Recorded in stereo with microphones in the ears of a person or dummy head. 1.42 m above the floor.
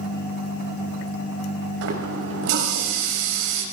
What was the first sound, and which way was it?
A running tap, 70° right (ahead or behind).